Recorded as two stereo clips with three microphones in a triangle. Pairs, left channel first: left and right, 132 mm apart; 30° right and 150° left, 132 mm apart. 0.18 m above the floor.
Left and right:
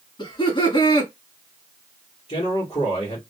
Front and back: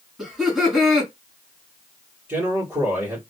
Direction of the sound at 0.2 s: 65° left.